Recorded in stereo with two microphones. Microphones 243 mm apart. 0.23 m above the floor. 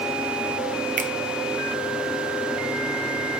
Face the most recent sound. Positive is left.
turn(degrees=-30)  # may be behind; listen again after turning